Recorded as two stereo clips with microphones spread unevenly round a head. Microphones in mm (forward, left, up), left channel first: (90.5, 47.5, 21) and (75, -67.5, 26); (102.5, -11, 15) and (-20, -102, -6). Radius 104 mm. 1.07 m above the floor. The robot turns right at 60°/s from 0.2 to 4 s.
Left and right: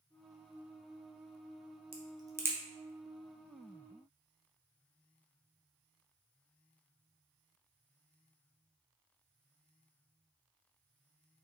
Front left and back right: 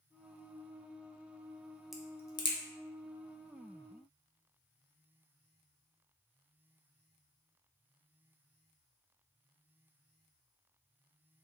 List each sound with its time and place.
1.9 s a crack: 60° right, 0.9 m; by 2.6 s 20° right, 0.9 m